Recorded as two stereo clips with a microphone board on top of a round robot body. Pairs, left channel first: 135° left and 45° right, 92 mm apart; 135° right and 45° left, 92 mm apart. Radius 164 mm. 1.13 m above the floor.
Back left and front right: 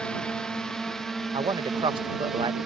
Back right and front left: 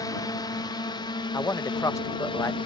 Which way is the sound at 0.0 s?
150° right.